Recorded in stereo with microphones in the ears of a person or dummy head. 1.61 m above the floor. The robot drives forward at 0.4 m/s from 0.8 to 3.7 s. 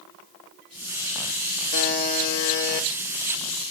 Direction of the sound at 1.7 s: 60° left (ahead or behind).